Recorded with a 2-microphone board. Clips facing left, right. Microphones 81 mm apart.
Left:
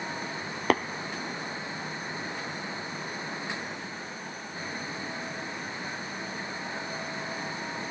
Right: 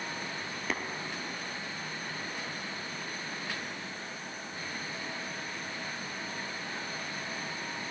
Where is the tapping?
75° left (ahead or behind), 0.5 m.